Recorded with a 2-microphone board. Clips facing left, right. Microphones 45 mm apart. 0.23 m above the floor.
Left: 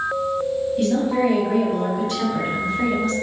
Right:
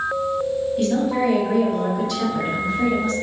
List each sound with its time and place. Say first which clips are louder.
0.8 s a woman speaking: left 1 dB; centre (ahead or behind), 1.1 m; by 3.1 s 60° left (ahead or behind), 1.7 m